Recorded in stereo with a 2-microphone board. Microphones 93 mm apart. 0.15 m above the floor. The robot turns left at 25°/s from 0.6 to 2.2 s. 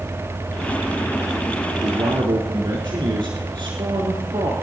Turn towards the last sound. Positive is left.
turn(degrees=-60)  # may be behind; listen again after turning